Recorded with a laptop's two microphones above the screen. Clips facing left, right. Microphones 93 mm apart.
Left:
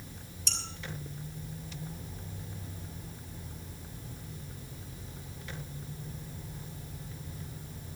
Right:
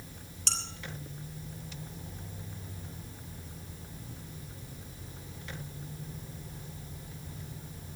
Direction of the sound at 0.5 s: 70° right (ahead or behind).